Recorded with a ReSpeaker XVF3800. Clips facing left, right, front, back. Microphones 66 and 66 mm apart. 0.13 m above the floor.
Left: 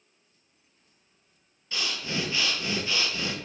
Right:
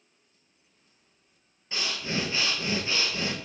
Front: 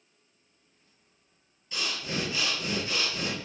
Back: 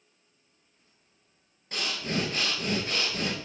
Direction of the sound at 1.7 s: 150° right.